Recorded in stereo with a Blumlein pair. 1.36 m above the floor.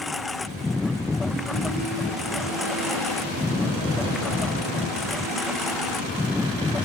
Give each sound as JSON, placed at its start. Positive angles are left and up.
{"t": 0.0, "sound": "a lawn mower", "azimuth_deg": 10}